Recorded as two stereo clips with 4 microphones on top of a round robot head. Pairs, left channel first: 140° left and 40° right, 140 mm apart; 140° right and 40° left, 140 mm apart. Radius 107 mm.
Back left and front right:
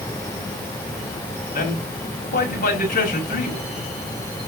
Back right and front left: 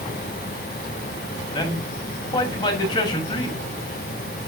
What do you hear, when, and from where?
1.5 s a man speaking: 160° left, 6.5 m